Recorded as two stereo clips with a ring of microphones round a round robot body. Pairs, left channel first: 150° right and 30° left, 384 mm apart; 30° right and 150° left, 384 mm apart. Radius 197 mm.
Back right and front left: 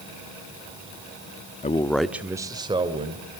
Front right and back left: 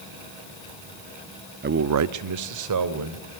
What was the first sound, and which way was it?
A man speaking, 165° left.